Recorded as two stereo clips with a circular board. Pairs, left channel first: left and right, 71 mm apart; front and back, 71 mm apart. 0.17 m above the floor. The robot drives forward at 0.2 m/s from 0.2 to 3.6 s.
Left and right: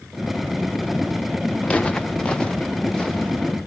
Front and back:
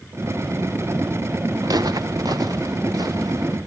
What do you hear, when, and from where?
1.6 s footsteps: 160° left, 0.9 m; by 3.6 s 170° left, 3 m